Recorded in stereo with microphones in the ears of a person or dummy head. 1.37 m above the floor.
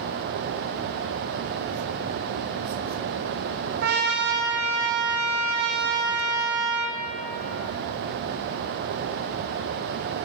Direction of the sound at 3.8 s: 60° right (ahead or behind).